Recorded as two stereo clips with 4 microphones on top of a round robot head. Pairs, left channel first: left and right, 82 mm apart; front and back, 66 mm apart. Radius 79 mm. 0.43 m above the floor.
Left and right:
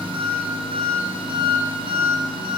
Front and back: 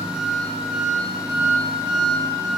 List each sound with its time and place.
0.0 s an engine running: 90° right, 1.4 m